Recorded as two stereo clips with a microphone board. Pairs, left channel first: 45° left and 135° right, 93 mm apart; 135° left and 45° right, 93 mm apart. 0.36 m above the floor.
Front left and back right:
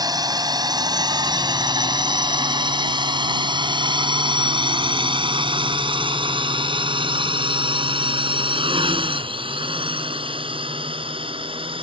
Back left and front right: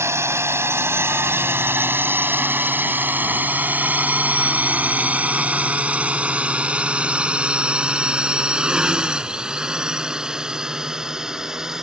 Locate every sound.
0.0 s a drone: 100° right; by 11.8 s 130° right